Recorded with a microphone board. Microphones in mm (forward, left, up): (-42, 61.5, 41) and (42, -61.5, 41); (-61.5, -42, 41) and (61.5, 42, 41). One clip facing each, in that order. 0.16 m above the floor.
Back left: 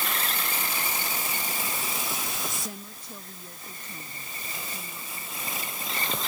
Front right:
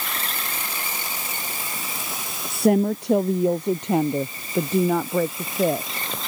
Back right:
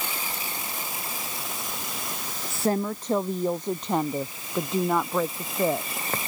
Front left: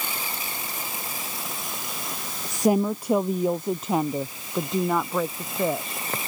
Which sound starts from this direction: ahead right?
A woman speaking, at 2.5 s.